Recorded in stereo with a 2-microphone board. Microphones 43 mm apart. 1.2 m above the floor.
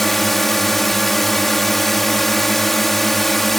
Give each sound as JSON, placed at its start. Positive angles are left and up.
{"t": 0.0, "sound": "a drone", "side_deg": 5}